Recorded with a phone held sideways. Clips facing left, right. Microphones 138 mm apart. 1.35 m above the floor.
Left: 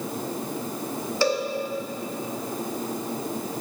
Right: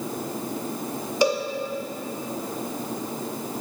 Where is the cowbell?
15° right (ahead or behind), 0.9 m.